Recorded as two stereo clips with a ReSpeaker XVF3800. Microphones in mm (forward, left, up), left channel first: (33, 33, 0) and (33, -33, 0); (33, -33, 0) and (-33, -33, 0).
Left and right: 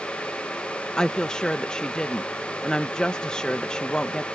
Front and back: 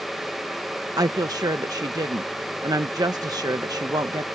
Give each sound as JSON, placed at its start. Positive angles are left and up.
{"t": 1.0, "sound": "a woman speaking", "azimuth_deg": 165}